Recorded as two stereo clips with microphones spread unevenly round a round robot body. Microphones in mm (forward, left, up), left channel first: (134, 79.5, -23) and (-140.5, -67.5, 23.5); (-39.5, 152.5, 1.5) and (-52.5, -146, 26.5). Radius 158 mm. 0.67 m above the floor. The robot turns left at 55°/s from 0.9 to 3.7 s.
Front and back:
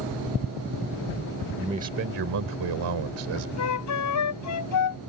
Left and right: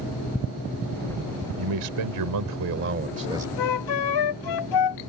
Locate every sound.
1.6 s a man speaking: 70° right; by 3.5 s 175° right
3.6 s a flute: 70° left; by 5.0 s 65° left